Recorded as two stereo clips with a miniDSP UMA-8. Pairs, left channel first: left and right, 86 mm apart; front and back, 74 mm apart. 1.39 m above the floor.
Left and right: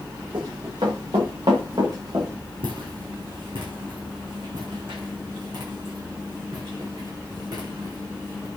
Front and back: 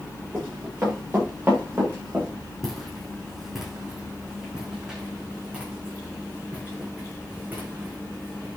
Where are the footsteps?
85° right, 5 m; by 8.5 s 120° right, 7.5 m.